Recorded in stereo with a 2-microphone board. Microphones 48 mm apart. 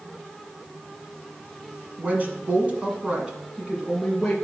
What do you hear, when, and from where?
2.0 s a woman speaking: 35° right (ahead or behind), 1.5 m; by 4.3 s 5° right (ahead or behind), 1.9 m